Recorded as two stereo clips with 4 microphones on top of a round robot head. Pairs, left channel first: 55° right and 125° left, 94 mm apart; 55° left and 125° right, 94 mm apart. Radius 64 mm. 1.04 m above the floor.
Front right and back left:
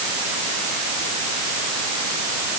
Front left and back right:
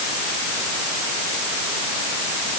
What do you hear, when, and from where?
Only background noise.